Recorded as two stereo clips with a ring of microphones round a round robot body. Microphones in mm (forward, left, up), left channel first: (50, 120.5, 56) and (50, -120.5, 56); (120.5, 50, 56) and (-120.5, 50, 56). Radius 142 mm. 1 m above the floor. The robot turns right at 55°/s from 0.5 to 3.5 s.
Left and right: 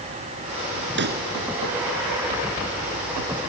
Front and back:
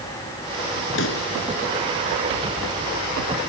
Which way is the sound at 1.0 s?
50° right.